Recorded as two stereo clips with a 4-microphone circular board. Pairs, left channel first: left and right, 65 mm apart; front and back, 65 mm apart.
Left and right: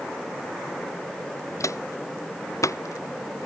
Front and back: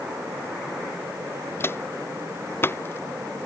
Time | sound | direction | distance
1.6 | footsteps | 55° left | ?